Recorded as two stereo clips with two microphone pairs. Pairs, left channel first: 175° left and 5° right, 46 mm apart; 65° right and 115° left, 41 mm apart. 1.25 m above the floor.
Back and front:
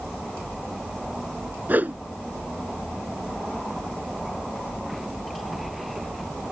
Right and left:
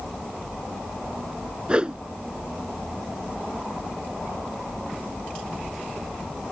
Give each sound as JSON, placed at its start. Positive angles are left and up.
{"t": 1.7, "sound": "a whoosh", "azimuth_deg": 45}